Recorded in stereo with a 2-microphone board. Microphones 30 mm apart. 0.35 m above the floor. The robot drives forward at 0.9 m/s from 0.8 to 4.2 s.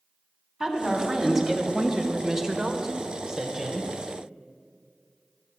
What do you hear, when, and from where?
0.6 s a woman speaking: 5° right (ahead or behind), 2 m; by 3.9 s 15° right (ahead or behind), 1.2 m